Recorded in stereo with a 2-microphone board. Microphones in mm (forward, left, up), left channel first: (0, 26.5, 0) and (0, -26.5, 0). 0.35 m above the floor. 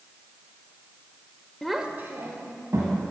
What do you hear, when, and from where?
1.6 s a child speaking: 10° left (ahead or behind), 0.6 m; by 3.1 s 70° right (ahead or behind), 2 m